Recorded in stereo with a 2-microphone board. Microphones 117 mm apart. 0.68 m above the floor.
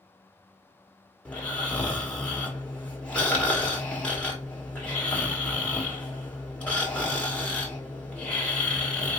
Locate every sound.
1.2 s snoring: 10° left (ahead or behind), 1.3 m